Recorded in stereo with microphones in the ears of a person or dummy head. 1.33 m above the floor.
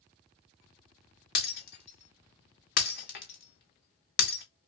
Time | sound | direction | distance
1.4 | breaking glass | 50° left (ahead or behind) | 0.7 m